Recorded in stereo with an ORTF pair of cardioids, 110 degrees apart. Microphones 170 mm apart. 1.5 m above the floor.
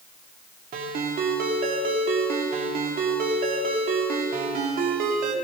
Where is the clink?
I don't hear a clink.